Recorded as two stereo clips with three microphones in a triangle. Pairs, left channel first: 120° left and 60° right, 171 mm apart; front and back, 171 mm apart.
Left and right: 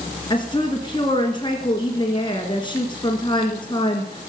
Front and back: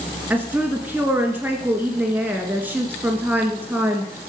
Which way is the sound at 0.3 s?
115° left.